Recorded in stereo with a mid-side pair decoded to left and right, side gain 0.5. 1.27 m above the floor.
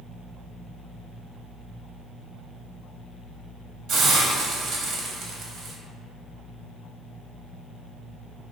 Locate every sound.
3.9 s a hiss: 70° right, 0.7 m